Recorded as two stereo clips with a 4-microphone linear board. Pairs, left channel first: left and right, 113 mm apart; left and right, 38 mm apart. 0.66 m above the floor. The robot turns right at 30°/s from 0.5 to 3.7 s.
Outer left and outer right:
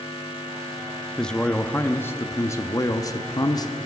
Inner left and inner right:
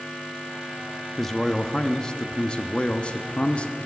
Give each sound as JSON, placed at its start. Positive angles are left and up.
{"t": 1.2, "sound": "a man speaking", "azimuth_deg": 10, "distance_m": 0.6}